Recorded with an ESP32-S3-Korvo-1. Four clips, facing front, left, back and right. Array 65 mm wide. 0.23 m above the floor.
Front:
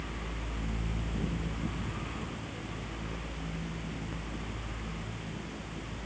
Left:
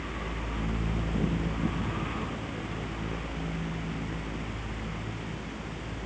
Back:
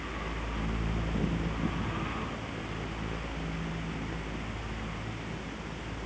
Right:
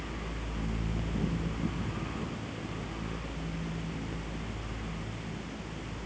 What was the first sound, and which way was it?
Only background noise.